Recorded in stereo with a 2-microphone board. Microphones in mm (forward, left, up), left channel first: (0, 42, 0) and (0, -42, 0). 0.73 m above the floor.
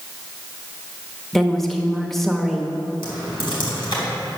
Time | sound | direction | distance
1.3 | a woman speaking | 5° left (ahead or behind) | 1.0 m
3.0 | typing on a keyboard | 75° left (ahead or behind) | 3.5 m